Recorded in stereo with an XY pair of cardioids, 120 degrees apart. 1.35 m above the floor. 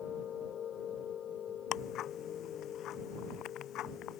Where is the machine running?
50° left.